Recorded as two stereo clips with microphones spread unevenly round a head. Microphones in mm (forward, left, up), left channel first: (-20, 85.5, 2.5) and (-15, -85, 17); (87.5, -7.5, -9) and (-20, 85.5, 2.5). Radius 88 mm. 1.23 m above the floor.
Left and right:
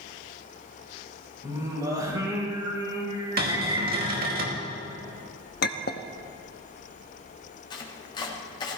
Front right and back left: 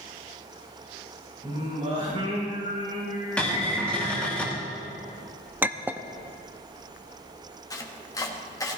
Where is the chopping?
25° left, 1.8 m.